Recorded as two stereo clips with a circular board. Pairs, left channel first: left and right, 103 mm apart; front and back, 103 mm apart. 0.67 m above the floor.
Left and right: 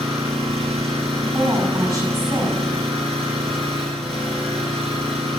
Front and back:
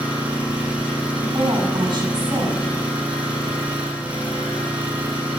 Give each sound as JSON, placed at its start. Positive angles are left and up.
{"t": 0.0, "sound": "an engine running", "azimuth_deg": -105, "distance_m": 5.5}
{"t": 1.2, "sound": "a woman speaking", "azimuth_deg": -135, "distance_m": 5.5}